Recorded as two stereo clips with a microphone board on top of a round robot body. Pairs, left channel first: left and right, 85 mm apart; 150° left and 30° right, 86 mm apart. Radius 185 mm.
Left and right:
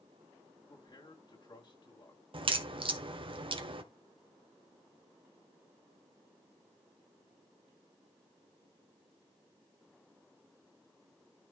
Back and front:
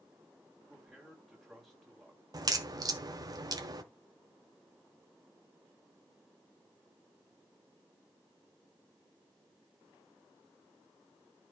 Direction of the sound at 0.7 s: 60° left.